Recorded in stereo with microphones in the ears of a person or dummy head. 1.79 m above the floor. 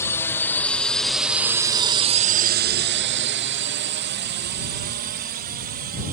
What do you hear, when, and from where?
0.0 s a drone: 15° left (ahead or behind); by 6.1 s 45° right (ahead or behind)